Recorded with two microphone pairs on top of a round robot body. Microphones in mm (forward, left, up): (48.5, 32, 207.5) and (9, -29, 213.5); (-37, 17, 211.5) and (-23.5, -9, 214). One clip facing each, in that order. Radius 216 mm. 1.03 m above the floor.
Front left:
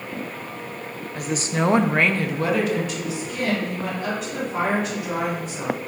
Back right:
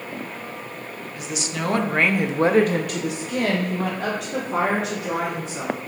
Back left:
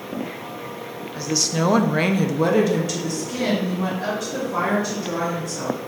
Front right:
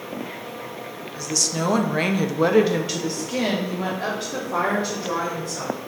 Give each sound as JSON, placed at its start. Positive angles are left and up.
{"t": 1.1, "sound": "a woman speaking", "azimuth_deg": 60, "distance_m": 0.8}